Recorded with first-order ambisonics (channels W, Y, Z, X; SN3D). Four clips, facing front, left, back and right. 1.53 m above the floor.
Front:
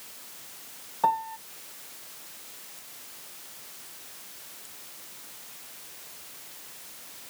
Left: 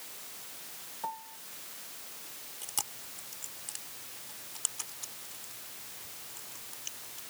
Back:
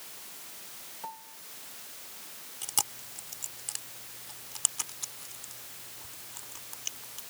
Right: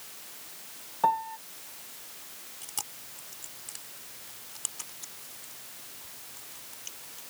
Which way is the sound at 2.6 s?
175° left.